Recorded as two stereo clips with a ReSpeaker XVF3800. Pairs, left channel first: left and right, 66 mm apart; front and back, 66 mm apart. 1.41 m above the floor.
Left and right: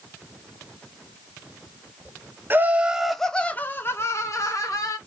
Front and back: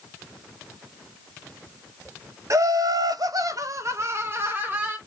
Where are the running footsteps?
No running footsteps in this recording.